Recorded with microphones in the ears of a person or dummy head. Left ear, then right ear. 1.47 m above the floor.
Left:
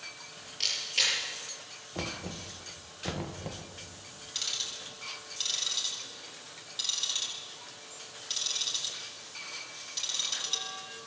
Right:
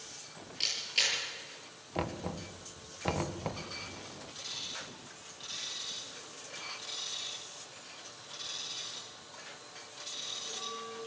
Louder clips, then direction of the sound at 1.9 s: Right 1 dB; 35° right (ahead or behind).